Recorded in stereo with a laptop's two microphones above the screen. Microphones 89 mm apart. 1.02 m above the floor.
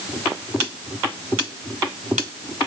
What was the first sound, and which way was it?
Only background noise.